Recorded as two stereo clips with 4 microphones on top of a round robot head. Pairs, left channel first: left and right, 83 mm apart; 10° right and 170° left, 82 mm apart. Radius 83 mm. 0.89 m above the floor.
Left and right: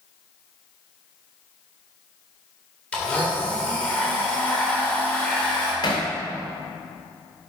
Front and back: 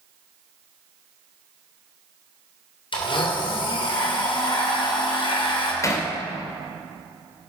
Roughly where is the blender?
Ahead.